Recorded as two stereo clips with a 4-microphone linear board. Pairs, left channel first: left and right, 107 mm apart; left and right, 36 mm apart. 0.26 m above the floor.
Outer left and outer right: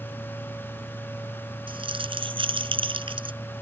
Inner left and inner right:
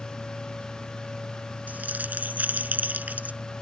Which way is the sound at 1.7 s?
55° right (ahead or behind).